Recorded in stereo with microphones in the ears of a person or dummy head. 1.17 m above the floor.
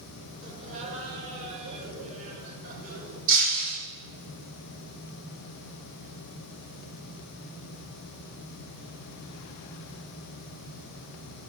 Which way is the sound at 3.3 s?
40° right (ahead or behind).